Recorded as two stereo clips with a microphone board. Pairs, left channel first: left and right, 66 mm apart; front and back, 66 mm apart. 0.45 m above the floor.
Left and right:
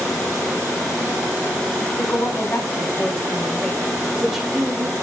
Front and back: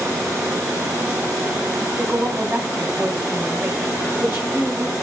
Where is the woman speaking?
110° left, 1.6 m; by 4.9 s 125° right, 1.2 m.